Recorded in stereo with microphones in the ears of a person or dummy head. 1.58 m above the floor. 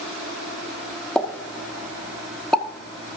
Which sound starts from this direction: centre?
A pop, at 1.1 s.